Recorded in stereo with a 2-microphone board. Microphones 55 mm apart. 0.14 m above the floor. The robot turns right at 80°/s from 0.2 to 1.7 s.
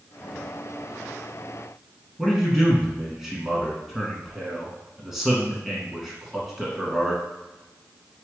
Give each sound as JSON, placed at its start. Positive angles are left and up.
{"t": 2.2, "sound": "a man speaking", "side_deg": -5, "distance_m": 1.2}